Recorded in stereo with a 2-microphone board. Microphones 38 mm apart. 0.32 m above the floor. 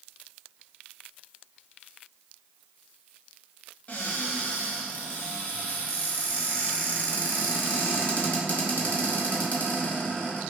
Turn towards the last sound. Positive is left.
turn(degrees=50)  # may be behind; listen again after turning